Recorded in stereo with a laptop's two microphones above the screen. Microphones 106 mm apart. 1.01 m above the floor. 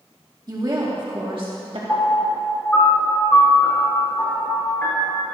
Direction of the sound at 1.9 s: 20° left (ahead or behind).